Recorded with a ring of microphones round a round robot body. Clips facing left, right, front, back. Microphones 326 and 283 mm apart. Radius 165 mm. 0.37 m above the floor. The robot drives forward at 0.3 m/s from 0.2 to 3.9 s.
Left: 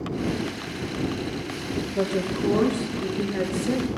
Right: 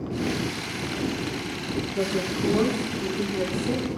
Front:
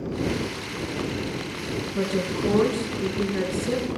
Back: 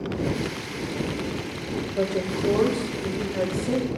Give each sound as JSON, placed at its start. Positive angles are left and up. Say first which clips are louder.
{"t": 1.9, "sound": "a woman speaking", "louder": "left 2 dB, even", "azimuth_deg": 5, "distance_m": 2.5}